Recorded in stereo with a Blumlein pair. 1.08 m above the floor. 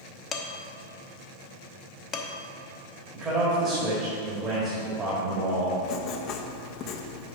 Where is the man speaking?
25° right, 1.7 m.